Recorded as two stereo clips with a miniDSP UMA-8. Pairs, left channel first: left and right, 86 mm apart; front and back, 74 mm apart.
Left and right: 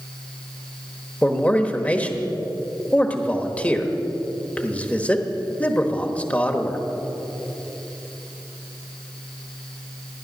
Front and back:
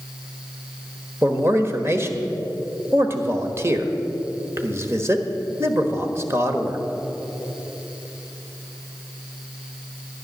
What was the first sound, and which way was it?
A man speaking, 155° left.